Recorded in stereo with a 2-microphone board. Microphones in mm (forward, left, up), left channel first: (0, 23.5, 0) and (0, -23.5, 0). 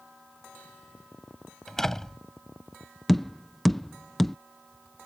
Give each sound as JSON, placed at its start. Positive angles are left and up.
{"t": 1.7, "sound": "a door slam", "side_deg": 10}
{"t": 3.1, "sound": "tapping", "side_deg": 5}